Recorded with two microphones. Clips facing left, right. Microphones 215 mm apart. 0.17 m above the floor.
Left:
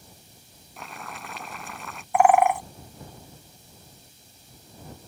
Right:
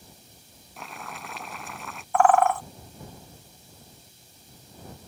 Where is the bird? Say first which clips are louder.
Left 1 dB; 15° left (ahead or behind).